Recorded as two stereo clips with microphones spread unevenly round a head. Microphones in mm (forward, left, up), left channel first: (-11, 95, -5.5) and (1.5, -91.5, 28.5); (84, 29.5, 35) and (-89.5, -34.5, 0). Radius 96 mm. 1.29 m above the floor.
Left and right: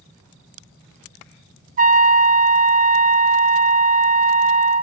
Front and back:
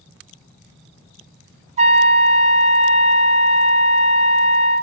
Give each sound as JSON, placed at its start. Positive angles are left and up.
{"t": 1.8, "sound": "a trumpet", "azimuth_deg": -130, "distance_m": 0.5}